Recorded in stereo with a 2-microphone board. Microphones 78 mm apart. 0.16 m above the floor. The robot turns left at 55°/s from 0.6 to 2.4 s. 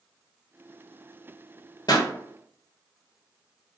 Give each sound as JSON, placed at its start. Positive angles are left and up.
{"t": 1.9, "sound": "a pop", "side_deg": 65, "distance_m": 0.9}